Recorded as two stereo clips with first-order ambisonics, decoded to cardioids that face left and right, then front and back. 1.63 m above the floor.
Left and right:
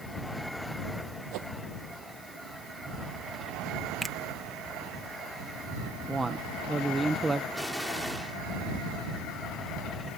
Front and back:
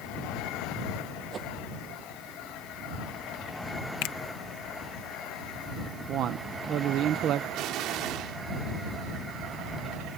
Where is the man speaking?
160° right.